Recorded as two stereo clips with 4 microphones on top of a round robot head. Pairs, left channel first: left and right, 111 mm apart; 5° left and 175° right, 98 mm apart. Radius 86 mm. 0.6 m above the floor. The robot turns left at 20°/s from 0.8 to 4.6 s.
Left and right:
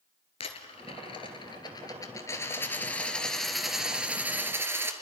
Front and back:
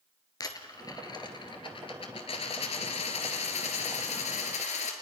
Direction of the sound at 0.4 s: 55° left.